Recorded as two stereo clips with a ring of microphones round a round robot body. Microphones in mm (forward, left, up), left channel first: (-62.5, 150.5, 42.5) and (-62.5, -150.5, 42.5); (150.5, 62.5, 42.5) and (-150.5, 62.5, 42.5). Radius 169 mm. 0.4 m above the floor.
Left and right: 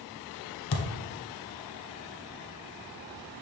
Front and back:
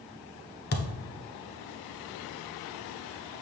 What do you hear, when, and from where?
0.7 s a thud: 55° left, 1.1 m